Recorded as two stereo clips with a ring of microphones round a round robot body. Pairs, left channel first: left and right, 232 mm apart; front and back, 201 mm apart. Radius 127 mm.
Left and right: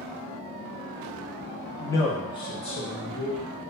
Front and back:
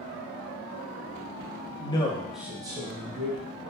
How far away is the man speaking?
About 0.7 m.